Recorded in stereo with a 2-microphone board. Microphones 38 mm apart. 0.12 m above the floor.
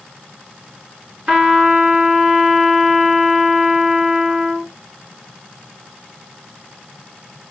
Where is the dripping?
I don't hear dripping.